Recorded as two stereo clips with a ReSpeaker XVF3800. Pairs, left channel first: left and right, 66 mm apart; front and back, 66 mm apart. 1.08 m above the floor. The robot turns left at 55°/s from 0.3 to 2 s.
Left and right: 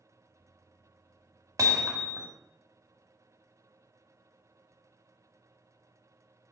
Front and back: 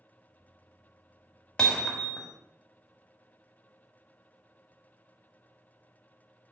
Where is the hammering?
75° right, 1.4 m; by 2.3 s 95° right, 1.4 m.